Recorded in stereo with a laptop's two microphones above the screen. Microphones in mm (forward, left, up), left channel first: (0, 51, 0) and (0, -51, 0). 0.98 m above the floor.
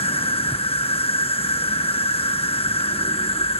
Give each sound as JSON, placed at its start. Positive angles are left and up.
{"t": 0.0, "sound": "an insect", "side_deg": 65}